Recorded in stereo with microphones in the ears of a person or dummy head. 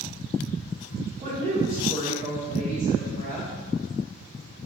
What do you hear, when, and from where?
1.2 s a woman speaking: 30° right (ahead or behind), 1.5 m